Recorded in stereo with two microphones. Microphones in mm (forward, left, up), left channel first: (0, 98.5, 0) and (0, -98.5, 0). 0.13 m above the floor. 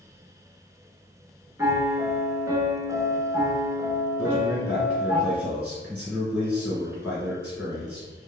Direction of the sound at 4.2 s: 5° right (ahead or behind).